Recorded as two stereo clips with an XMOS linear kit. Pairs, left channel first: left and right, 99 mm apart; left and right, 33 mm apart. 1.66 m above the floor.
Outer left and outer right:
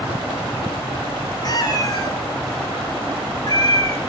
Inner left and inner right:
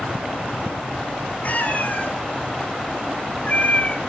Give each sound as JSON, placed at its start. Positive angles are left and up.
{"t": 1.4, "sound": "a cat meowing", "side_deg": 50, "distance_m": 4.0}